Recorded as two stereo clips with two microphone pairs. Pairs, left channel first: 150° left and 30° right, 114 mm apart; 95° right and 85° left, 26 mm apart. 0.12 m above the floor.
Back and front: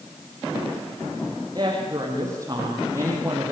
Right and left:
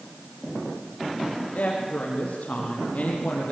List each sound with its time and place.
1.6 s a woman speaking: 90° right, 5.5 m; by 3.5 s 100° right, 4.5 m